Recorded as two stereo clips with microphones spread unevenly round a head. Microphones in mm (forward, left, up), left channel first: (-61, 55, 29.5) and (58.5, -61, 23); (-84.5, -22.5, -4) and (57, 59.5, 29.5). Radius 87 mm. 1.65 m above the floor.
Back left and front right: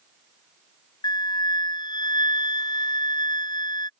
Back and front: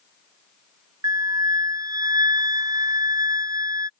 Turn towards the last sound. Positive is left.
turn(degrees=80)